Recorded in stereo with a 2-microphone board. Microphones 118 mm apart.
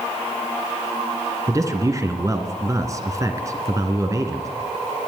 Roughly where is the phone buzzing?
No phone buzzing in this recording.